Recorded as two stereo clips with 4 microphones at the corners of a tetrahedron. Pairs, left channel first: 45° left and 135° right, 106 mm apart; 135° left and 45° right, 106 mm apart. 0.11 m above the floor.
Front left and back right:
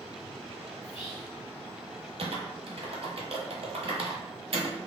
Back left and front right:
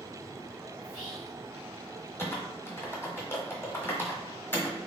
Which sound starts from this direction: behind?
Typing on a keyboard, at 2.2 s.